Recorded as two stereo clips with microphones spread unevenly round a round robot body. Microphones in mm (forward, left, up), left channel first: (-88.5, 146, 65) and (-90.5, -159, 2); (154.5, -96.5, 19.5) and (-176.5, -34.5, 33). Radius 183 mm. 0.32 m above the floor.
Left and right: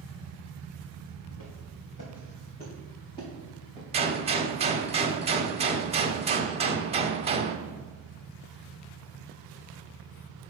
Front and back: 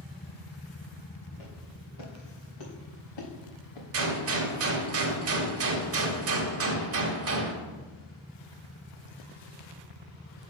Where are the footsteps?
40° left, 2.5 m; by 3.8 s straight ahead, 2 m.